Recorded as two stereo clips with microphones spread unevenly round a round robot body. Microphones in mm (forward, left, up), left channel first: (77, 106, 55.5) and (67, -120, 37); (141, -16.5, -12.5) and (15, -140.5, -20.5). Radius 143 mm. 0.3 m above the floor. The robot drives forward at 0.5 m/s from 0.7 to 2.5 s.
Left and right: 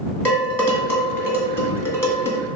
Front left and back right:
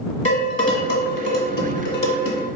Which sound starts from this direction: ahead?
Dishes clattering, at 0.2 s.